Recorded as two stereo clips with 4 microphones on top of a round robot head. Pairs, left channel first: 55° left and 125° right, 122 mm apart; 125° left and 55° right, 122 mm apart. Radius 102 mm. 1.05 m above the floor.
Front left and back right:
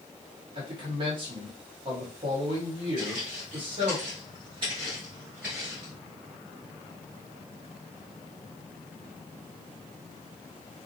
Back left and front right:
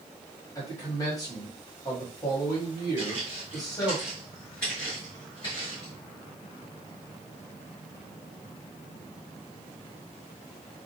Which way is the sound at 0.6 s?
175° right.